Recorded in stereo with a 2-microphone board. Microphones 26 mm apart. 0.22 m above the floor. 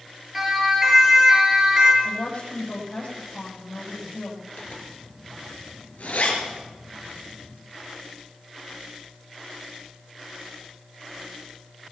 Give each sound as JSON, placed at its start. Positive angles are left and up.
{"t": 0.3, "sound": "a siren", "side_deg": -10, "distance_m": 4.5}
{"t": 2.0, "sound": "a woman speaking", "side_deg": 55, "distance_m": 10.0}
{"t": 4.6, "sound": "a zipper", "side_deg": 70, "distance_m": 5.0}